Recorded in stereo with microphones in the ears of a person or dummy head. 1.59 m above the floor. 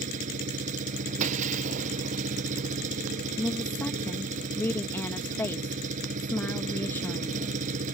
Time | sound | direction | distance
0.0 | an engine running | 45° right (ahead or behind) | ?
1.2 | breaking glass | 45° right (ahead or behind) | ?
3.4 | a woman speaking | 15° left (ahead or behind) | ?